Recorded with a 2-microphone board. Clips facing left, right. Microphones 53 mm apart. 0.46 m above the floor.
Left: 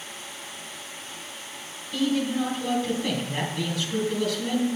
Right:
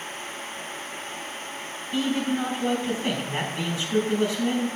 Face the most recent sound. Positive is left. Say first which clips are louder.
# left 1 dB
turn(degrees=-25)  # may be behind; listen again after turning